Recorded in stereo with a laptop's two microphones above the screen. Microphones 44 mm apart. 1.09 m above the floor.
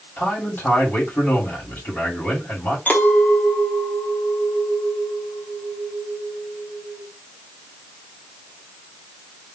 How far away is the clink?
About 1.4 m.